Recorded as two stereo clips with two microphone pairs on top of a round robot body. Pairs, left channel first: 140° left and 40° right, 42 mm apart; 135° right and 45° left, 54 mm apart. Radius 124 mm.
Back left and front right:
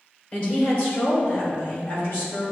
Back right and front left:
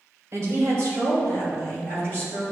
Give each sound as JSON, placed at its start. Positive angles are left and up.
{"t": 0.3, "sound": "a woman speaking", "azimuth_deg": 90, "distance_m": 2.0}